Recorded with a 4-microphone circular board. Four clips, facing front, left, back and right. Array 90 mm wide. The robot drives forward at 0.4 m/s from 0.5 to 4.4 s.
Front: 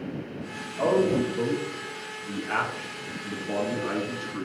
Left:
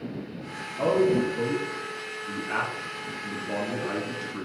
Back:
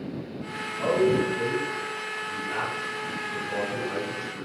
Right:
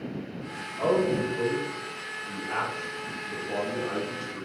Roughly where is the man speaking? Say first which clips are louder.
Left 2 dB, even; ahead left.